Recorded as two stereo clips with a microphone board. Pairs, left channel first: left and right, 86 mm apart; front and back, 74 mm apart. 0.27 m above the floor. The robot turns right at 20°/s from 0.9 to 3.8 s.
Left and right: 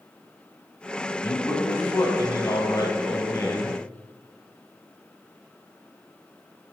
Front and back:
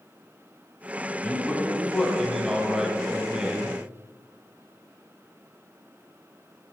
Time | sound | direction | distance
1.2 | a man speaking | 65° left | 1.5 m